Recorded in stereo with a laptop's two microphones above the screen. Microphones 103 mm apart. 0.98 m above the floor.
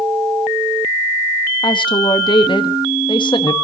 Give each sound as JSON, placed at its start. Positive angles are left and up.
{"t": 1.6, "sound": "a woman speaking", "side_deg": 50, "distance_m": 1.4}